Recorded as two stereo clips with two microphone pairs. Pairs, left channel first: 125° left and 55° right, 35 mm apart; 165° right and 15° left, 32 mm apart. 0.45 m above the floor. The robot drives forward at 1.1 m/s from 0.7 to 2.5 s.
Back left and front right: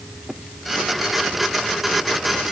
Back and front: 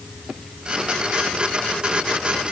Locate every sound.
Only background noise.